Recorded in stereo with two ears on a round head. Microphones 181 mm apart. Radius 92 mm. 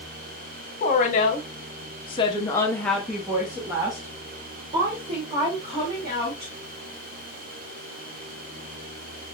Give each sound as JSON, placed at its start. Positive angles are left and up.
{"t": 0.8, "sound": "a woman speaking", "side_deg": 40, "distance_m": 1.5}